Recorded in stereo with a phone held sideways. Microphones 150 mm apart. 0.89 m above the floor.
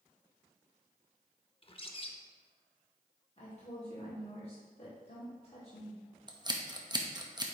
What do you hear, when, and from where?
1.6 s a bird: 40° left (ahead or behind), 0.6 m
3.4 s a woman speaking: 40° left (ahead or behind), 1.9 m
6.3 s scissors: 30° right (ahead or behind), 0.7 m